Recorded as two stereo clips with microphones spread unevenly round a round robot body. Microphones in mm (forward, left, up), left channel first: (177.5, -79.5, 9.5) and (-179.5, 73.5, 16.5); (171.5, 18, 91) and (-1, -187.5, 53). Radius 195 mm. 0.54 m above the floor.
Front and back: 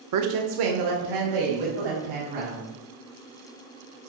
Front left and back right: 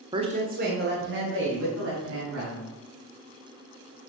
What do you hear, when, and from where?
0.1 s a woman speaking: 170° left, 0.8 m; by 2.7 s 175° right, 4.5 m